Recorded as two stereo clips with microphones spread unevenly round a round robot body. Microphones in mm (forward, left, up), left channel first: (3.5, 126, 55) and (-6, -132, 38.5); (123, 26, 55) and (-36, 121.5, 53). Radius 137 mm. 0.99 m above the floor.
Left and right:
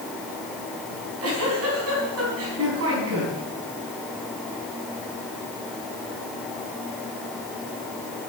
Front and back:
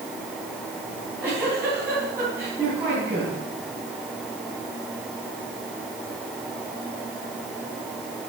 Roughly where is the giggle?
Behind right.